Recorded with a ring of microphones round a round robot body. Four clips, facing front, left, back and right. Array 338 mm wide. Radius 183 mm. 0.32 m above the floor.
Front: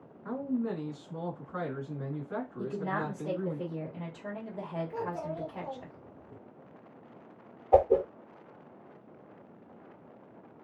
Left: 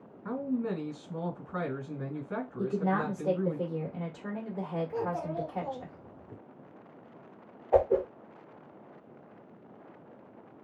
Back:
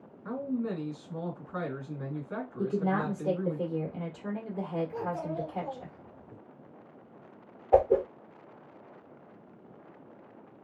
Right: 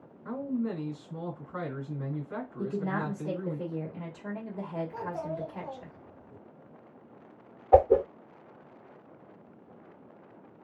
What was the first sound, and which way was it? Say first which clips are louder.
A man speaking: even, even; 95° left.